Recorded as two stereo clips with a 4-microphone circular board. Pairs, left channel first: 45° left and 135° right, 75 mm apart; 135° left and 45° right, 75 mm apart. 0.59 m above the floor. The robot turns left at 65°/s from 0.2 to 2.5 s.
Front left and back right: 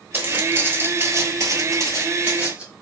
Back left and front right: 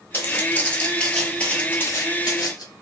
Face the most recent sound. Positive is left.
turn(degrees=150)